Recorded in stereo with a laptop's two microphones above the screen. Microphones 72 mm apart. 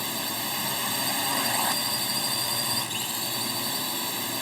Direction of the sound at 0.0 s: Centre (ahead or behind).